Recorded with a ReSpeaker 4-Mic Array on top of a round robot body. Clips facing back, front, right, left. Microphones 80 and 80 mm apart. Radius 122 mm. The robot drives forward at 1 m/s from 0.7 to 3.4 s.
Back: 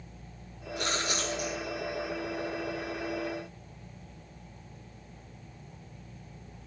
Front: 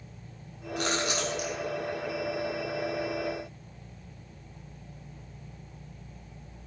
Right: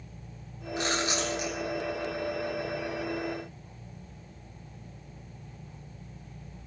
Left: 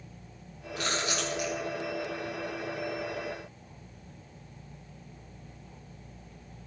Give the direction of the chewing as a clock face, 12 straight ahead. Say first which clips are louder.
Front 3 dB, right 2 dB; 1 o'clock.